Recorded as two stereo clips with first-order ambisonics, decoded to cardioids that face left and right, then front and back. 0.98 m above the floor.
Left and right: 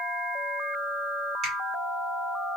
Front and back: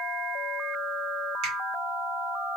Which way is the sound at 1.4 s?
150° right.